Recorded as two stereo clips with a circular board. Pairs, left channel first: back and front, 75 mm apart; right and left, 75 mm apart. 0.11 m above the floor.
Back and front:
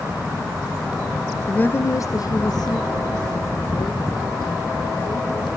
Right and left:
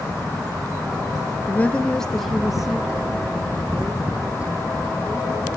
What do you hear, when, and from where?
1.5 s a woman speaking: 120° right, 1.1 m; by 5.5 s 165° left, 6.5 m